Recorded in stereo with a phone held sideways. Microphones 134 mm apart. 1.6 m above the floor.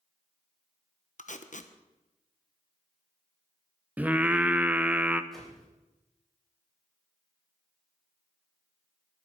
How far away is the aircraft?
I don't hear an aircraft.